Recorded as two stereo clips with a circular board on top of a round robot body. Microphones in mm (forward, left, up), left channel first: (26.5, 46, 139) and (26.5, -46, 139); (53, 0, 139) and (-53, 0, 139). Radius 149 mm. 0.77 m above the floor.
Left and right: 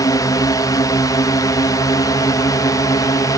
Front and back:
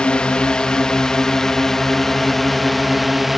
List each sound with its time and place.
0.0 s a drone: 75° left; by 3.4 s 90° left